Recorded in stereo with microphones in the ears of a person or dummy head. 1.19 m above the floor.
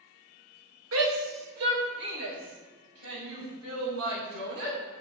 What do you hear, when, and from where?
0.9 s a shout: 70° right (ahead or behind), 1.6 m; by 4.8 s 85° right, 5.5 m